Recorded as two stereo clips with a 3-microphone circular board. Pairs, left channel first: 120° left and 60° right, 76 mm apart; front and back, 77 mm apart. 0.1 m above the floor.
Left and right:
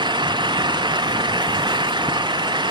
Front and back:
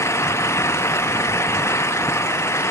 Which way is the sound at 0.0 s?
50° right.